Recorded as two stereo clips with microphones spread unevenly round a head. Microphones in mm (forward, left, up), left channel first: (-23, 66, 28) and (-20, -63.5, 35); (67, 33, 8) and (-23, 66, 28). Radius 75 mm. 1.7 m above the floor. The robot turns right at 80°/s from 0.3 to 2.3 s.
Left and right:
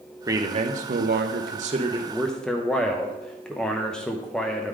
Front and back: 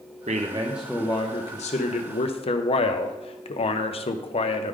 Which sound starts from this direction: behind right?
A man speaking, at 0.3 s.